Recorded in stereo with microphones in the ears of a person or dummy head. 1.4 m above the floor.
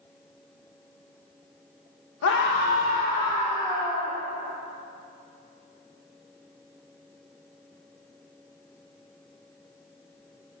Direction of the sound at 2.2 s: 65° left (ahead or behind).